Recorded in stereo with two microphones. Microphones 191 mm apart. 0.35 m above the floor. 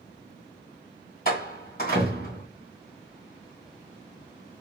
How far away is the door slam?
About 2 m.